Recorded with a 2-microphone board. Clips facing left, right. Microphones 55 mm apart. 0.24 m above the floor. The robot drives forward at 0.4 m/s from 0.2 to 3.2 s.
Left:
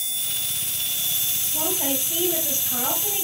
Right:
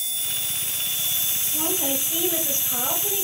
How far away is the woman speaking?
About 6.5 m.